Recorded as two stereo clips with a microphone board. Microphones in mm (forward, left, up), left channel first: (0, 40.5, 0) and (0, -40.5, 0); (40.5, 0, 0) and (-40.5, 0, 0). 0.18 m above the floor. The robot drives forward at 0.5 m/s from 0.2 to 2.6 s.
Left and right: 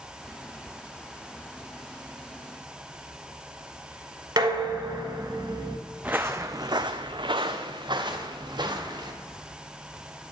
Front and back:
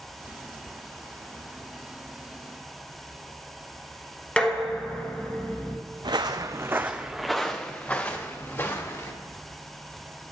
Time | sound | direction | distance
4.4 | dishes clattering | 75° right | 1.3 m
6.0 | footsteps | 160° right | 0.7 m